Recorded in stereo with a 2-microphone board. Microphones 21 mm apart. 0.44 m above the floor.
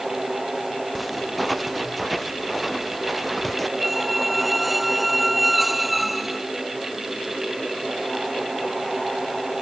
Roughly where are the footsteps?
Centre.